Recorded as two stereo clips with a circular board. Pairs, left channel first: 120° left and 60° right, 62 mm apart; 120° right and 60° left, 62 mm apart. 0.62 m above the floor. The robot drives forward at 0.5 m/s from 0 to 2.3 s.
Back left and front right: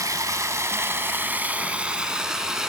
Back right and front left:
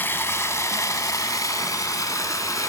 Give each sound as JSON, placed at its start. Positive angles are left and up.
{"t": 0.0, "sound": "running water", "azimuth_deg": -70, "distance_m": 0.9}